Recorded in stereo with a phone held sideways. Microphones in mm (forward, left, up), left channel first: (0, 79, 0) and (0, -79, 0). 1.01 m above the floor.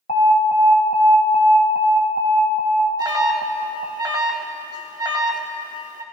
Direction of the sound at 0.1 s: 60° left (ahead or behind).